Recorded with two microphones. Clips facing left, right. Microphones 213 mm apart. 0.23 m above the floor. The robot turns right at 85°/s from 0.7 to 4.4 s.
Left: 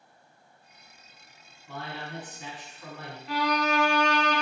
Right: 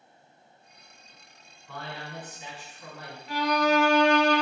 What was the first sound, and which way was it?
A man speaking, 145° left.